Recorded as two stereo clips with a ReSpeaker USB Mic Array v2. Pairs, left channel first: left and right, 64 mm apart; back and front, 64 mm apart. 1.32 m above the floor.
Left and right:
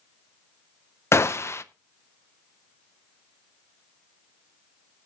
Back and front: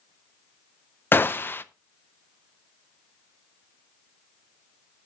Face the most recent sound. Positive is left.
turn(degrees=130)